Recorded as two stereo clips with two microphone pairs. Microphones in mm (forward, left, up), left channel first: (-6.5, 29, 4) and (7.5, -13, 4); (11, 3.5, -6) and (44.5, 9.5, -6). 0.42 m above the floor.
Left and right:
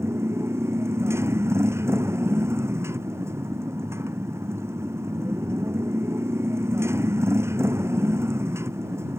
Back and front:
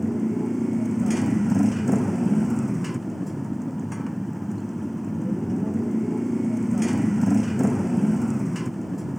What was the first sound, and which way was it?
A motorcycle, 80° right.